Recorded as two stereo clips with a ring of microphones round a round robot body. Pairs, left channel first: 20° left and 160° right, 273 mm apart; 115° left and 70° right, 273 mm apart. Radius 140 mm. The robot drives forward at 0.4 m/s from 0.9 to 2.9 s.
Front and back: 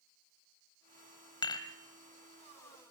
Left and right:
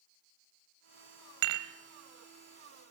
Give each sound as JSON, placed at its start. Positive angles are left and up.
{"t": 1.4, "sound": "dishes clattering", "azimuth_deg": -50, "distance_m": 2.0}